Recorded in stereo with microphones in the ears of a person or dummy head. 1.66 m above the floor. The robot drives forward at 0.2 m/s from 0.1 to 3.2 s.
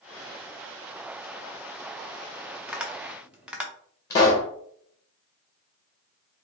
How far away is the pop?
About 0.9 m.